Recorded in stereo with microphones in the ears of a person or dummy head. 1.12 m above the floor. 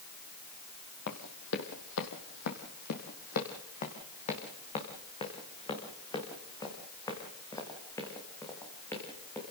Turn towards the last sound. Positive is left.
turn(degrees=10)  # may be behind; listen again after turning